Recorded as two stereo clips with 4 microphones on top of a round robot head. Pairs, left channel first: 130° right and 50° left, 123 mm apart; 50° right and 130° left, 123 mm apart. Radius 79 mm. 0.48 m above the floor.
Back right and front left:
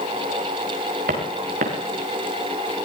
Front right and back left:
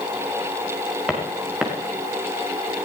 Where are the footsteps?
45° left, 4 m.